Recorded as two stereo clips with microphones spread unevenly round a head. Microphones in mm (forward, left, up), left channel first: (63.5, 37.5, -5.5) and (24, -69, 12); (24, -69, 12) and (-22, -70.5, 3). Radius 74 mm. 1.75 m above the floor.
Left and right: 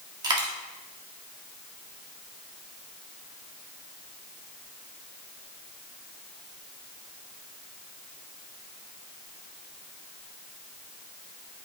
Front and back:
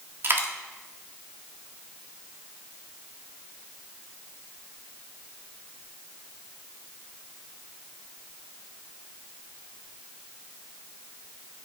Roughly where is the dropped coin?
Behind right.